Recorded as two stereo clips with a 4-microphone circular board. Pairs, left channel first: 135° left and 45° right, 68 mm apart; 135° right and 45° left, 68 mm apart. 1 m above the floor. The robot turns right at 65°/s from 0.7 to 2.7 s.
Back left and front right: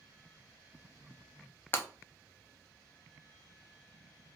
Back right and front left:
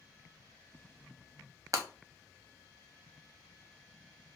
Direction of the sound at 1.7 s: 75° left.